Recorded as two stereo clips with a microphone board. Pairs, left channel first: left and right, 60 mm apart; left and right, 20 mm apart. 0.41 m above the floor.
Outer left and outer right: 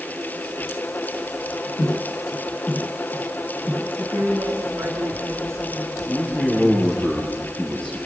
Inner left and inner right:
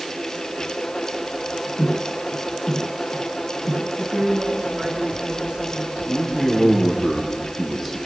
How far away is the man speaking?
About 9 m.